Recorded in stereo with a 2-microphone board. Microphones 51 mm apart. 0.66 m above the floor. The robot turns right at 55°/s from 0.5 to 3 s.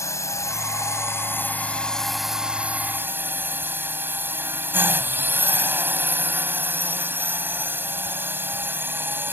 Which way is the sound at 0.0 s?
90° left.